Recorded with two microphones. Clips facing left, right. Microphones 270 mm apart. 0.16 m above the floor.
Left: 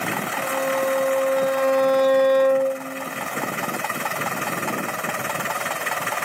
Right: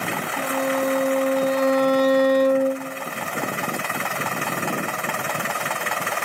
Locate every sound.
0.4 s a violin: 35° right (ahead or behind), 1.0 m